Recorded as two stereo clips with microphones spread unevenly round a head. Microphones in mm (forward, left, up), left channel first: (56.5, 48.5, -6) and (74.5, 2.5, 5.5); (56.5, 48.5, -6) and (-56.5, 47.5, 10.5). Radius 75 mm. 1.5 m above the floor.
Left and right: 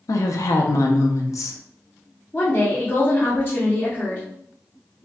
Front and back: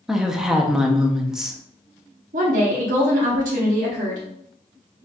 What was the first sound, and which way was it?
A woman speaking, 100° left.